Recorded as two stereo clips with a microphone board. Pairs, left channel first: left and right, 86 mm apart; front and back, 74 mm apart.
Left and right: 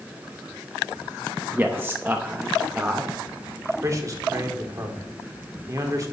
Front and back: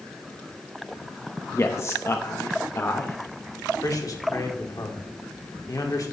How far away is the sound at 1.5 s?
About 0.8 m.